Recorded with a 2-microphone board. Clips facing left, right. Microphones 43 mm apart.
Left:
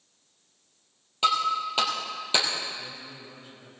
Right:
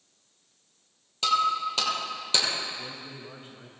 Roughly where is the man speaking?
Right.